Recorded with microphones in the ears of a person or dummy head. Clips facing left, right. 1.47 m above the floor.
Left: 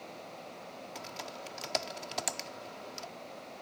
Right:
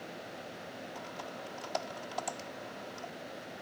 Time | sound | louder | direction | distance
0.9 | typing on a keyboard | right 1 dB | 35° left (ahead or behind) | ?